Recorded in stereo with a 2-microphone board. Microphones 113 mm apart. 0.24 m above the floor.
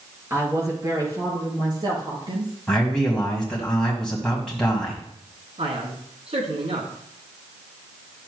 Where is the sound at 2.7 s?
5° left (ahead or behind), 1.8 m.